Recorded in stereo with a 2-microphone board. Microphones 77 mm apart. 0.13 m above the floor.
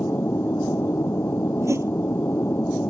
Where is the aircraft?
30° left (ahead or behind).